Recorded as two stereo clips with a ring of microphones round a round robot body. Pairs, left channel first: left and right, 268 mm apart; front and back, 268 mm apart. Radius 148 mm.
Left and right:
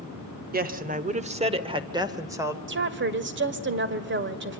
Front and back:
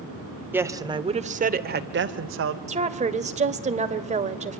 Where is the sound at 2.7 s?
120° right, 1.9 m.